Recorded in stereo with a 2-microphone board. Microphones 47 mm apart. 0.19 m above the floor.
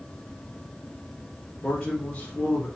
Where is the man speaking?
30° left (ahead or behind), 1.7 m.